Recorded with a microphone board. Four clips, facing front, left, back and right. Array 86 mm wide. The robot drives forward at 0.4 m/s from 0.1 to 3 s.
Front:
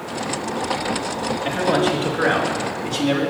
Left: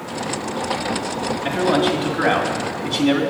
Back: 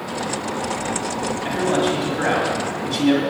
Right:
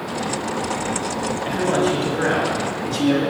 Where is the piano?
No piano in this recording.